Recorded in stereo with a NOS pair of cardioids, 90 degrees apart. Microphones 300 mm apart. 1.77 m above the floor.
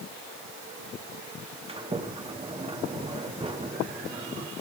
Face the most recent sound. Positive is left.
turn(degrees=-20)